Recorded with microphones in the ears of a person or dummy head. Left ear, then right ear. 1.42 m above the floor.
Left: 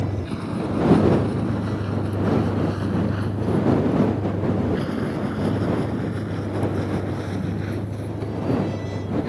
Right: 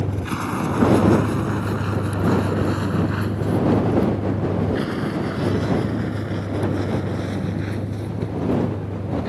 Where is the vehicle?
45° right (ahead or behind); by 9.3 s 5° right (ahead or behind).